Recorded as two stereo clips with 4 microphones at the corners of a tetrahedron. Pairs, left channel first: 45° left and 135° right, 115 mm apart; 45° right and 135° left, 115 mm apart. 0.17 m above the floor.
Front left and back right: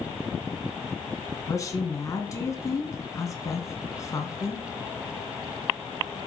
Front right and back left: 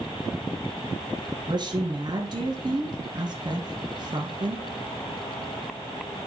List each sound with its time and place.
1.5 s a woman speaking: 100° left, 2 m